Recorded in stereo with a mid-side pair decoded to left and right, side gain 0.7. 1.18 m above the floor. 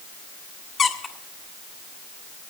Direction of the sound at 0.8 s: 35° left.